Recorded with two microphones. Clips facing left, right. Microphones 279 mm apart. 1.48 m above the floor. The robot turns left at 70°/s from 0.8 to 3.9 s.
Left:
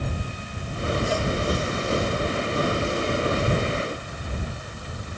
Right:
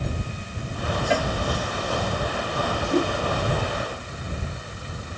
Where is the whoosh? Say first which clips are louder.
Right 4 dB; 70° right (ahead or behind); by 3.1 s 85° right.